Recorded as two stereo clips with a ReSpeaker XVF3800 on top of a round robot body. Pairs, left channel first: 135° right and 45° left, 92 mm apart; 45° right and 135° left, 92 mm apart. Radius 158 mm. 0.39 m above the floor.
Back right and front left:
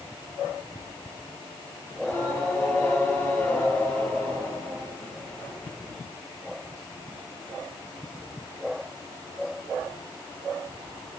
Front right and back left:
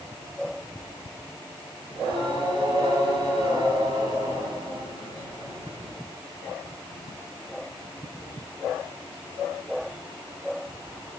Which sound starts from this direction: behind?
Singing, at 1.9 s.